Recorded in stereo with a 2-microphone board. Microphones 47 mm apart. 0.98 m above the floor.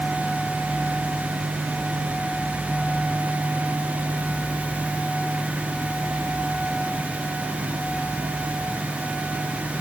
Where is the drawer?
No drawer in this recording.